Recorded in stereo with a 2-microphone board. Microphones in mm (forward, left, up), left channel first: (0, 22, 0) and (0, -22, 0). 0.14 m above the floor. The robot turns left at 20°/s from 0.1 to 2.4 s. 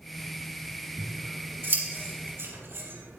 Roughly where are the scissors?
Right.